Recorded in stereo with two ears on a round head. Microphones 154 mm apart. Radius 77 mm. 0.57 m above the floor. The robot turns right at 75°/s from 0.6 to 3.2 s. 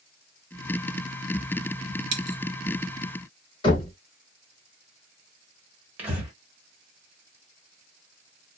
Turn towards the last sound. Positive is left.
turn(degrees=-10)  # may be behind; listen again after turning